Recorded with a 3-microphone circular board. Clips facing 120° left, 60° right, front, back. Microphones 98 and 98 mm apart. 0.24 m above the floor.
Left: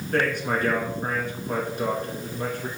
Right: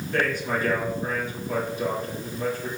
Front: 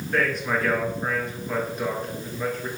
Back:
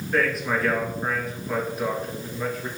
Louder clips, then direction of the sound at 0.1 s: Left 1 dB, back 1 dB; 95° left.